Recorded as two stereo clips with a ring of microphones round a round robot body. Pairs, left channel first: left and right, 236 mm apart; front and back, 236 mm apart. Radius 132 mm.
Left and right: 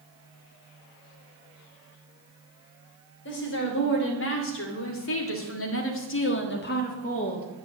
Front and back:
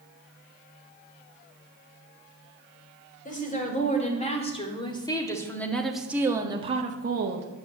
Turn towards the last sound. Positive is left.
turn(degrees=155)